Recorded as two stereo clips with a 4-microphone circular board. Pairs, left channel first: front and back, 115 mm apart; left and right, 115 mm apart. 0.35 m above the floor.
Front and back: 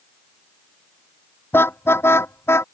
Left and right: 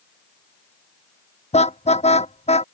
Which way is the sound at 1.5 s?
70° left.